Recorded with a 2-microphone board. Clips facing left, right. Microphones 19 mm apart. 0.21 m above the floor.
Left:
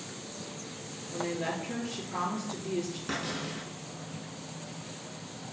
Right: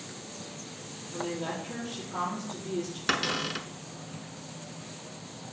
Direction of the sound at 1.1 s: 60° left (ahead or behind).